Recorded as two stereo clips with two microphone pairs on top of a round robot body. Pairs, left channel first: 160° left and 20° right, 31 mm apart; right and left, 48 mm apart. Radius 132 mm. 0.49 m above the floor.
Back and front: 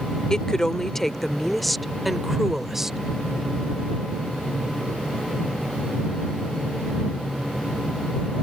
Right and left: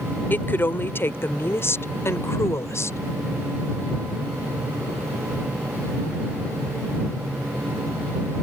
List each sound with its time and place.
0.3 s a woman speaking: 130° right; by 3.0 s 95° right